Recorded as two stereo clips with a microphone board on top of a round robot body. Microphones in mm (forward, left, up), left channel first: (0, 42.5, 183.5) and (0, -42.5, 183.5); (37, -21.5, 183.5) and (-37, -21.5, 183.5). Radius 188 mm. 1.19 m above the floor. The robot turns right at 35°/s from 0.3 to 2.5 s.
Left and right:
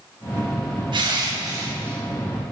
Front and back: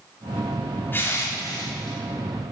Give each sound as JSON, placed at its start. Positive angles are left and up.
{"t": 0.9, "sound": "crushing", "azimuth_deg": -65, "distance_m": 3.5}